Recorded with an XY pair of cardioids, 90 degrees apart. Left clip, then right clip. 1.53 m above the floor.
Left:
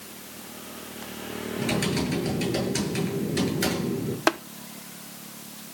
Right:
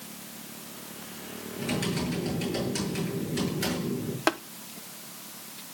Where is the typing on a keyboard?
40° left, 8.5 m.